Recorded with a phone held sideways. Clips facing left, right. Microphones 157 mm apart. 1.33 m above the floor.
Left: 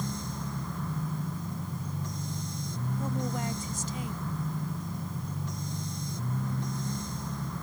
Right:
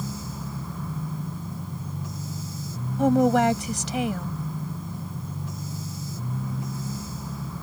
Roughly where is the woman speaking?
Right.